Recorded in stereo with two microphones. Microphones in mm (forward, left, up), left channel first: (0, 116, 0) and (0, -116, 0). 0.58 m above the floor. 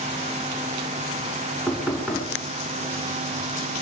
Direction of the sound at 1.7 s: Centre (ahead or behind).